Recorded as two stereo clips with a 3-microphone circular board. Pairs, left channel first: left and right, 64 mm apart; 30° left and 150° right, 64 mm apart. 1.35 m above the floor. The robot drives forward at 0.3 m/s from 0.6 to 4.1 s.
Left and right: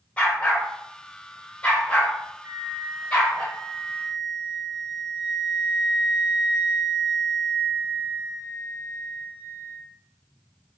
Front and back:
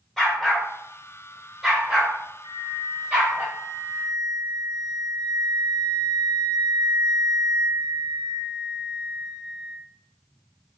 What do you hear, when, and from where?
0.2 s a dog barking: 105° left, 1.0 m; by 3.4 s 160° left, 1.4 m
2.4 s a flute: 160° right, 1.7 m; by 9.8 s 165° right, 2 m